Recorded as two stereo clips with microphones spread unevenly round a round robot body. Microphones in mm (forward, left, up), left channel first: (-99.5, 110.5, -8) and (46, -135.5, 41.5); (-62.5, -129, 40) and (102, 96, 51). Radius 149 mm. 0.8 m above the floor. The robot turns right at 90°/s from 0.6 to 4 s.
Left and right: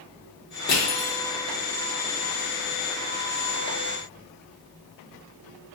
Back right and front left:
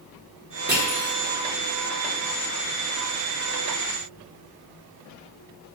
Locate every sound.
0.7 s crushing: 95° left, 0.9 m; by 1.1 s 135° left, 0.9 m